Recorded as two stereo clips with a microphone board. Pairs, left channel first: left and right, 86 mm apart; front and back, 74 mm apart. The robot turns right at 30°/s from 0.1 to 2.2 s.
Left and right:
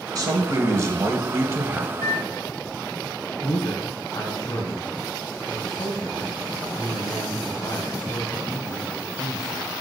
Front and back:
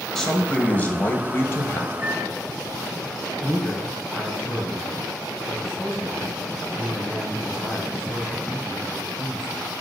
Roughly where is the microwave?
Ahead left.